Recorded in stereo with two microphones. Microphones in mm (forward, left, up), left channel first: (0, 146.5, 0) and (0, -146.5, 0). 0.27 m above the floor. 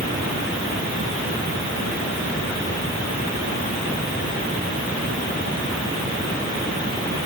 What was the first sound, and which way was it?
Only background noise.